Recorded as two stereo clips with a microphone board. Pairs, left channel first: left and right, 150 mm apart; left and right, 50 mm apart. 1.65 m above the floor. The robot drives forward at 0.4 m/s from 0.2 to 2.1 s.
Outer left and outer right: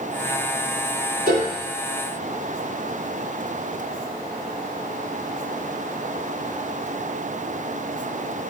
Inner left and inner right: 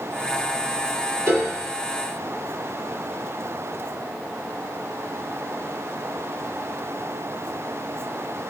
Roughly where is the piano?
Right.